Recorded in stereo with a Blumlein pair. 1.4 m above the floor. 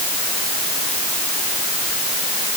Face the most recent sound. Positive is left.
No sound to turn to.